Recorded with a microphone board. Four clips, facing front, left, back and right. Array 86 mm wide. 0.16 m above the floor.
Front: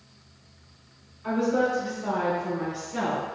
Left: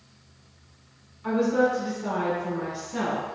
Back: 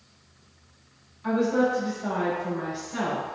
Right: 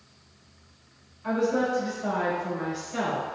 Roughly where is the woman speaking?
Behind left.